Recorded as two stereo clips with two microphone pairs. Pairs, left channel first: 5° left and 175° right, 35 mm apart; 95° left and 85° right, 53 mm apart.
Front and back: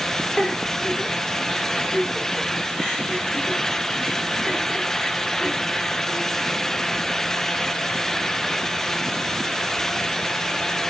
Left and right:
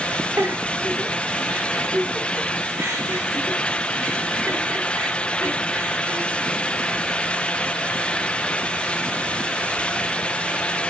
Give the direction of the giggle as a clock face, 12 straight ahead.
2 o'clock.